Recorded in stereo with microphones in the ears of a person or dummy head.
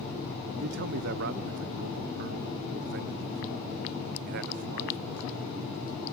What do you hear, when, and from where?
0.6 s a man speaking: 55° right (ahead or behind), 0.8 m